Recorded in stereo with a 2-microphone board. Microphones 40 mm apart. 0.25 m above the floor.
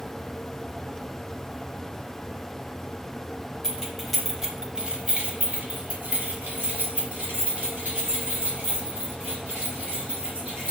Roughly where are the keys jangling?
Centre.